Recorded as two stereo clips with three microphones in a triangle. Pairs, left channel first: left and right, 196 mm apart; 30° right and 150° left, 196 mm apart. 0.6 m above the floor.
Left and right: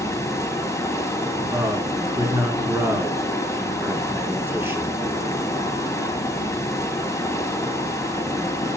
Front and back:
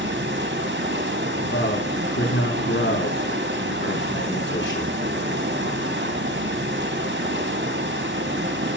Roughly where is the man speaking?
Ahead.